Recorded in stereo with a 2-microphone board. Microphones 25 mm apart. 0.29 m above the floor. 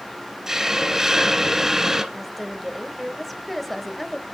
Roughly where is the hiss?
Centre.